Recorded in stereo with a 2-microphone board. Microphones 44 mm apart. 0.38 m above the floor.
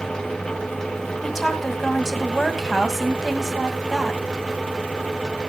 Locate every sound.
1.2 s a woman speaking: 5° left (ahead or behind), 1.9 m